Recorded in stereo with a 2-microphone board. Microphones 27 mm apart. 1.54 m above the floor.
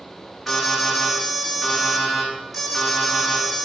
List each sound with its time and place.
0.5 s an alarm: 5° left (ahead or behind), 7.5 m